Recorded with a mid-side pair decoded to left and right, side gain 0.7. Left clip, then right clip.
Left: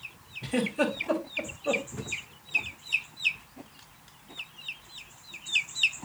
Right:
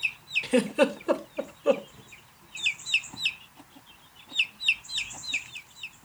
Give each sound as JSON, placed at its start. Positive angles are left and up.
{"t": 0.4, "sound": "a giggle", "azimuth_deg": -40, "distance_m": 1.8}